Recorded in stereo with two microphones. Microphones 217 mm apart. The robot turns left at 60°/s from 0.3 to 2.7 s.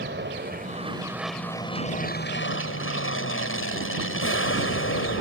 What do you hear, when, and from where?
0.0 s an aircraft: 120° right; by 5.2 s 95° left